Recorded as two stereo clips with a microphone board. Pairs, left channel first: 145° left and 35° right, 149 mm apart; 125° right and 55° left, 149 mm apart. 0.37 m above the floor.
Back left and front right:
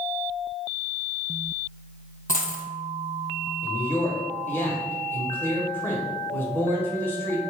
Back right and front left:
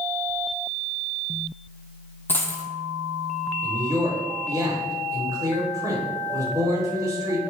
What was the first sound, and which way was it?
A dropped coin, 160° left.